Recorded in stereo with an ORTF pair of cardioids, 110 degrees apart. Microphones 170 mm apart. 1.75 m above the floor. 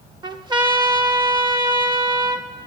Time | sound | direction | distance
0.2 | a trumpet | 25° right | 0.8 m